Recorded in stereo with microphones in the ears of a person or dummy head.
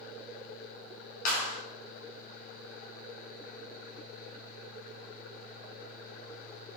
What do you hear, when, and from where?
1.2 s a clap: 55° left (ahead or behind), 2.5 m